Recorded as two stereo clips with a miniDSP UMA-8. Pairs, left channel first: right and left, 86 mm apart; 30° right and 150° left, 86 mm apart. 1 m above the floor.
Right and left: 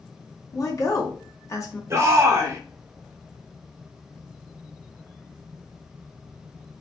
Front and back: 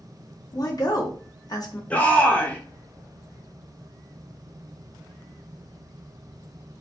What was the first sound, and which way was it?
A woman speaking, 50° right.